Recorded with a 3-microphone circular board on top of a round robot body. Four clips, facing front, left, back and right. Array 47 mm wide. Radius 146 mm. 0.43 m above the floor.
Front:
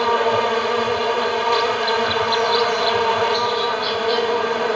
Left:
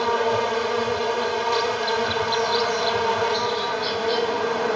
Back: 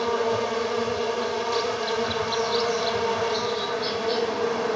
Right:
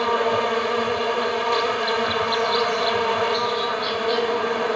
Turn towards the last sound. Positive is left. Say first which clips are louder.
# right 1 dB, front 6 dB
turn(degrees=-25)